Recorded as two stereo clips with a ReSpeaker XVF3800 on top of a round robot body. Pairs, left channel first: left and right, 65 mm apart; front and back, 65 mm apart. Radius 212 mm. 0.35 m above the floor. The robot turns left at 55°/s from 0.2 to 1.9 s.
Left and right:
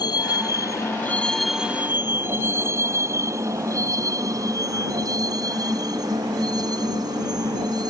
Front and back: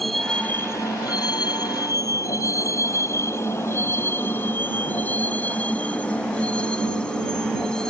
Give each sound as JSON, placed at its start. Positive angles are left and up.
{"t": 0.0, "sound": "a vehicle", "azimuth_deg": 90}